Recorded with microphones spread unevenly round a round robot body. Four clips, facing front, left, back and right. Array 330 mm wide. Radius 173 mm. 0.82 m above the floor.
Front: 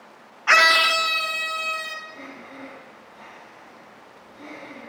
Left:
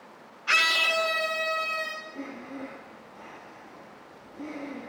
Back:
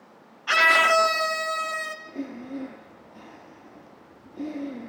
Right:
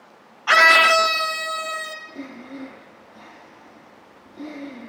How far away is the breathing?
About 4 m.